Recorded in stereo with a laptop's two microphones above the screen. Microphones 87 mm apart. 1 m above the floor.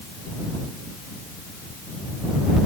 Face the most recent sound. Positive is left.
No sound to turn to.